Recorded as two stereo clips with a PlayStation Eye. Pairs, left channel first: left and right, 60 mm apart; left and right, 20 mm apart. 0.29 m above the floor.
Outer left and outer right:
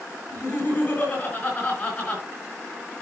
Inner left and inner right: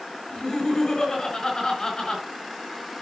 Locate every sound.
0.3 s laughter: 30° left (ahead or behind), 5 m; by 2.2 s 20° left (ahead or behind), 4 m